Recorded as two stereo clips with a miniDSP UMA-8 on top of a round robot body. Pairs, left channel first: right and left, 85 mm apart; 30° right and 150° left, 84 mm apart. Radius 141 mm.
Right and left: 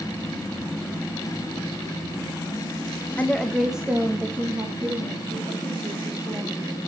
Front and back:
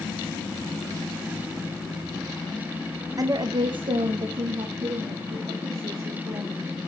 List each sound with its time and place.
3.2 s a woman speaking: 160° right, 0.7 m; by 6.7 s 140° left, 3 m